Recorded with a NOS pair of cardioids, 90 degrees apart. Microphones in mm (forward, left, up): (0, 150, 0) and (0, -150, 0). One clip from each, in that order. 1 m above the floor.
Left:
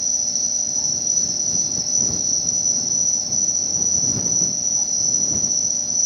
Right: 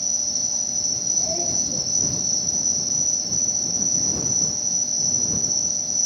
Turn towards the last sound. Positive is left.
turn(degrees=10)